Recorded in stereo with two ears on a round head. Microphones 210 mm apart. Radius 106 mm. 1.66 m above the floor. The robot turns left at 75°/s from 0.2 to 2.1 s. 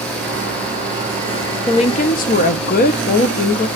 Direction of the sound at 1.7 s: 150° left.